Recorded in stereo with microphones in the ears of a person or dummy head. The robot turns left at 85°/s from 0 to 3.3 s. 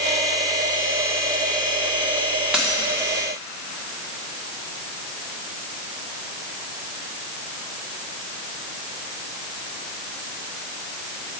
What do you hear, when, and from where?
2.5 s a dropped coin: 5° right (ahead or behind), 1.3 m; by 2.8 s 15° left (ahead or behind), 1.3 m